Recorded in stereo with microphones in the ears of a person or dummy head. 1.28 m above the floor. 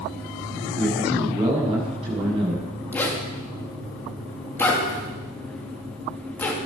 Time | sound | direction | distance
0.8 | a man speaking | 30° right (ahead or behind) | 8 m
2.9 | a zipper | 10° left (ahead or behind) | 2.5 m